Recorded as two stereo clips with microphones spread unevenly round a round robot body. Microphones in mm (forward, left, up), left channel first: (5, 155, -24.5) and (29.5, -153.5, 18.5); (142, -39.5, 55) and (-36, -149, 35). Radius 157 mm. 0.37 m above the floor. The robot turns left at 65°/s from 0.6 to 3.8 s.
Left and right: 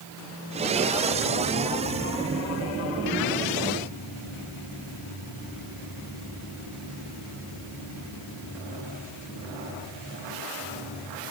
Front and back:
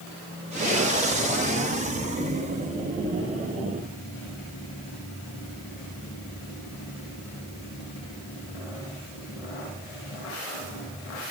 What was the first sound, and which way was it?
Only background noise.